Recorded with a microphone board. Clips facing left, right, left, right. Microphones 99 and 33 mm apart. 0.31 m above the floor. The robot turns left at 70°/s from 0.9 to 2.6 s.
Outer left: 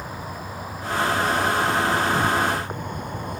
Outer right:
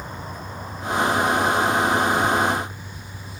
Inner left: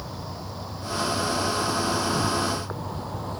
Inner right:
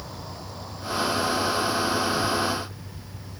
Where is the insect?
175° left; by 3.4 s 55° left.